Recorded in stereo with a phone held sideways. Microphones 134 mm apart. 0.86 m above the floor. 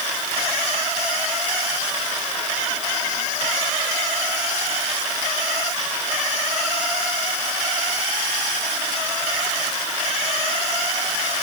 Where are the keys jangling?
I don't hear keys jangling.